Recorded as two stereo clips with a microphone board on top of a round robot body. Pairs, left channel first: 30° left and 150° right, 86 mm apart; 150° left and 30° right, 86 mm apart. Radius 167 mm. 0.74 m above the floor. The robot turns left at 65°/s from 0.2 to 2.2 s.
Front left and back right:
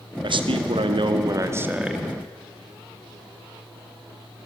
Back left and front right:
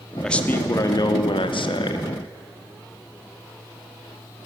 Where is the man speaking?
125° right, 1.7 m; by 2.1 s 110° left, 1.7 m.